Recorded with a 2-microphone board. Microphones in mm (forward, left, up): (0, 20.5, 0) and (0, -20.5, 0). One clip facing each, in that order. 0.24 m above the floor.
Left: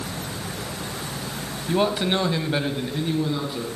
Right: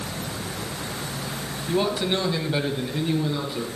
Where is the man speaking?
20° left (ahead or behind), 1.2 m; by 3.7 s 5° left (ahead or behind), 2 m.